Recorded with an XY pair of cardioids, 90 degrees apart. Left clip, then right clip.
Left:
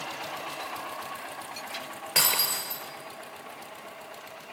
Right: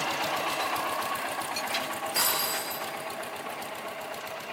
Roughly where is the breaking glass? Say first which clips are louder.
Left 4 dB; ahead left.